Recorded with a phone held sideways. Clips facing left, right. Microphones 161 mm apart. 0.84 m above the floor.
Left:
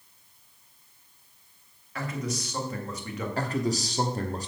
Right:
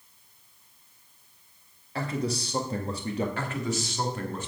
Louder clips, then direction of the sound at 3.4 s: Left 3 dB; 35° left (ahead or behind).